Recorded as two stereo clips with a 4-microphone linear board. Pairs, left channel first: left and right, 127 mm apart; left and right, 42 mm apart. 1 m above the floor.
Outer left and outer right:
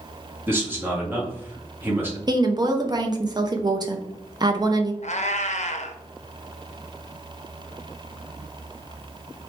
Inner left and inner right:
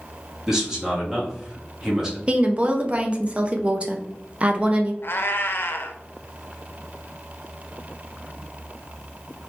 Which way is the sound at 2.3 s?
30° right (ahead or behind).